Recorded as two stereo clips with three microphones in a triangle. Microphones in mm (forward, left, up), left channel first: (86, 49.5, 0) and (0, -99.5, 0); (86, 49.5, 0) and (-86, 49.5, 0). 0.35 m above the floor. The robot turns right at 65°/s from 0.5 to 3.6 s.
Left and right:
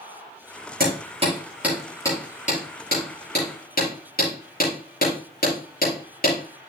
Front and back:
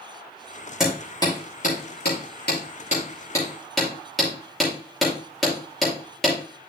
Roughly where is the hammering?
Right.